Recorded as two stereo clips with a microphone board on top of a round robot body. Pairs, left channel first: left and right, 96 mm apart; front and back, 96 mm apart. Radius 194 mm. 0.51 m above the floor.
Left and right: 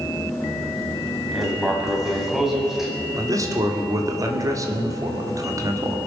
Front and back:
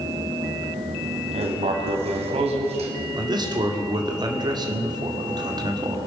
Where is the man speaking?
140° right, 2 m.